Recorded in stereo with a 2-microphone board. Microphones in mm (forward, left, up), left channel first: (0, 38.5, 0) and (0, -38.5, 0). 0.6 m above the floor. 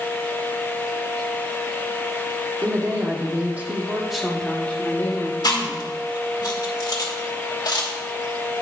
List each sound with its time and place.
2.6 s a woman speaking: 45° right (ahead or behind), 1.5 m; by 6.4 s 55° left (ahead or behind), 1.8 m
5.4 s chewing: 65° left (ahead or behind), 1.4 m